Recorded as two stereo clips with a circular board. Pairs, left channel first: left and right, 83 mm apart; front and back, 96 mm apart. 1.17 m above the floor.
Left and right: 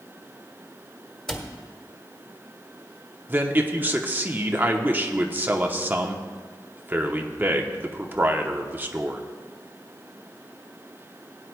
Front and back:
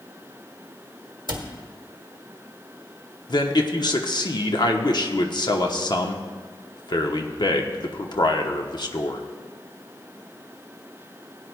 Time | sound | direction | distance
1.3 | a cupboard door | 170° left | 1.2 m
3.3 | a man speaking | 25° right | 1.0 m